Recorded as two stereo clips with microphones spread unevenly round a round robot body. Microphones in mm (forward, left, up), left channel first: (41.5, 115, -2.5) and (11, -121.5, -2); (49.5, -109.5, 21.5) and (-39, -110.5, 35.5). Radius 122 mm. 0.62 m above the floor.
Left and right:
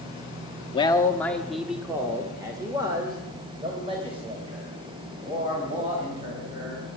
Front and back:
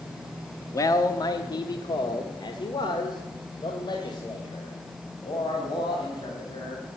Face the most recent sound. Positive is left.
turn(degrees=-35)